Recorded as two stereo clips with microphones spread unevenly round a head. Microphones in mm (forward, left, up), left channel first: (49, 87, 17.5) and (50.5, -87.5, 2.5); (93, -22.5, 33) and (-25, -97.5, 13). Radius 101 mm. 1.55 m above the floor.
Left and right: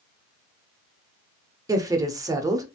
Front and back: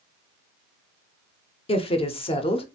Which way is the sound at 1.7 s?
15° right.